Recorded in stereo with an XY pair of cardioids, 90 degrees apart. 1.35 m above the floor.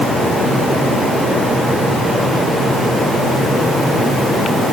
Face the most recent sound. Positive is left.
No sound to turn to.